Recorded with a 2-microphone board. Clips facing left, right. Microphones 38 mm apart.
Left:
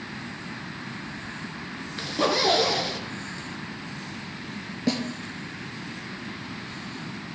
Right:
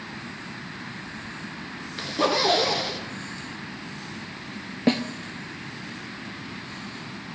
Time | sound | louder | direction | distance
2.0 | a zipper | right 1 dB | centre (ahead or behind) | 1.1 m
4.9 | a snare drum | right 4 dB | 35° right (ahead or behind) | 0.6 m